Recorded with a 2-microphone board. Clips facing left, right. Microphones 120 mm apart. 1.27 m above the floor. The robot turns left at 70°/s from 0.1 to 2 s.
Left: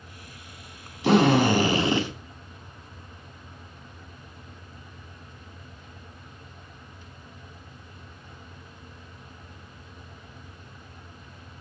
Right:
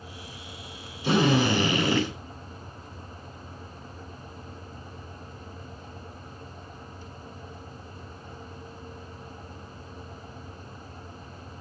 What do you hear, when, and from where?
1.0 s a drill: 85° left, 8 m; by 2.1 s 15° left, 8 m